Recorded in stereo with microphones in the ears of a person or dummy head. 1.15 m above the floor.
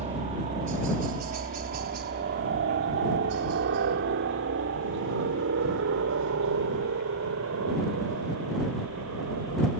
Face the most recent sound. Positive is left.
turn(degrees=-75)  # may be behind; listen again after turning